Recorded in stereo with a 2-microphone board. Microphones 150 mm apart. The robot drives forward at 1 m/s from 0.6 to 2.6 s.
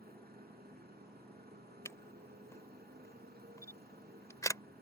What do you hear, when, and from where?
0.0 s a motorcycle: 80° right
1.9 s a camera shutter: 15° left (ahead or behind); by 4.6 s 20° left (ahead or behind)